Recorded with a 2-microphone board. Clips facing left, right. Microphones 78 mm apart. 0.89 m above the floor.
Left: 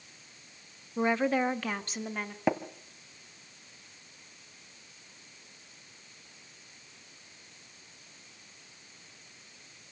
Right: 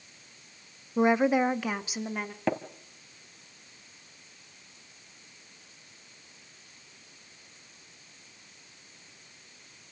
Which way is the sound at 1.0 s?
20° right (ahead or behind).